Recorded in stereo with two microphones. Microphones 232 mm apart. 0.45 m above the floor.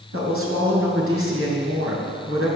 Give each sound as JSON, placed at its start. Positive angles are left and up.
{"t": 0.1, "sound": "a woman speaking", "side_deg": -75, "distance_m": 3.0}